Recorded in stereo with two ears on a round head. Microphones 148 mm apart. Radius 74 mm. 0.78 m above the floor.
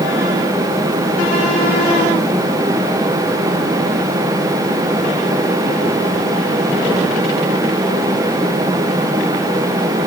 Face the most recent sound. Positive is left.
No sound to turn to.